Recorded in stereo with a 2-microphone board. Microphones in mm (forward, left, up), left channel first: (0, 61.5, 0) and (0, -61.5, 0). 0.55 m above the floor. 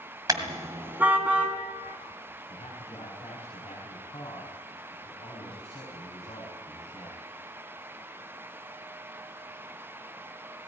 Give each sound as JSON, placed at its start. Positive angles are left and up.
{"t": 0.3, "sound": "a car horn", "side_deg": -30, "distance_m": 2.0}
{"t": 2.5, "sound": "a man speaking", "side_deg": 50, "distance_m": 5.0}